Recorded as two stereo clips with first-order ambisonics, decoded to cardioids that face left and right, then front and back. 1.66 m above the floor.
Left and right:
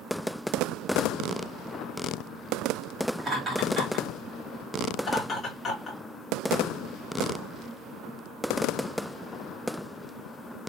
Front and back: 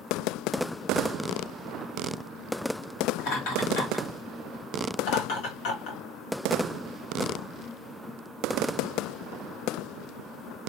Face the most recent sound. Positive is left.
turn(degrees=20)